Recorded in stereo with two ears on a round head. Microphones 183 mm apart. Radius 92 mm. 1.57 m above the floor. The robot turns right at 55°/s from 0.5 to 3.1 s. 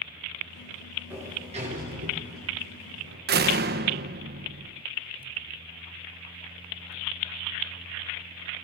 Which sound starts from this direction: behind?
A sliding door, at 1.1 s.